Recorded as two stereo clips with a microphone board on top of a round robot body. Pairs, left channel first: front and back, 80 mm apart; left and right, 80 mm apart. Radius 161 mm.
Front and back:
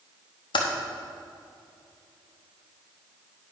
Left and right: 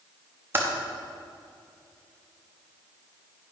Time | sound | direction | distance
0.5 | typing on a keyboard | 25° right | 1.0 m